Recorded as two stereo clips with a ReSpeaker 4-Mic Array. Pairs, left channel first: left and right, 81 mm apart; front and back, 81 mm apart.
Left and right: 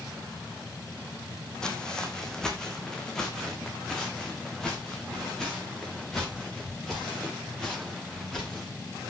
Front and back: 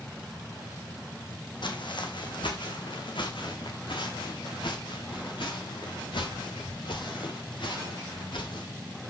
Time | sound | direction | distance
1.6 | footsteps | 10° left | 2.5 m